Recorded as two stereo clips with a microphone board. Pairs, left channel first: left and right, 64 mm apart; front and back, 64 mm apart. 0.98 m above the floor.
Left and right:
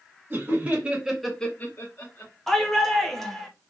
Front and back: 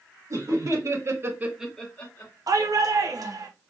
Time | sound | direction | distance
0.3 | laughter | 150° right | 1.9 m
2.5 | a shout | 175° left | 1.0 m